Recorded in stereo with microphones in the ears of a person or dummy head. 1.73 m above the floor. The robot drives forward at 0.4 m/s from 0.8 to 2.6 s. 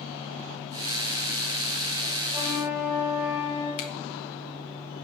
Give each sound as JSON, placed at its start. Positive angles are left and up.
{"t": 2.3, "sound": "a flute", "side_deg": -15, "distance_m": 3.0}
{"t": 3.8, "sound": "a finger snap", "side_deg": 55, "distance_m": 1.7}